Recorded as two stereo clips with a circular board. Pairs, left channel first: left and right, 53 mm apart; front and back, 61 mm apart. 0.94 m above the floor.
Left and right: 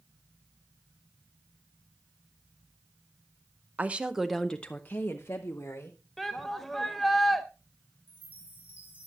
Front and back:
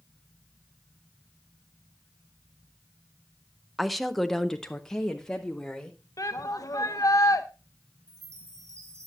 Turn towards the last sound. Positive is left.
turn(degrees=-145)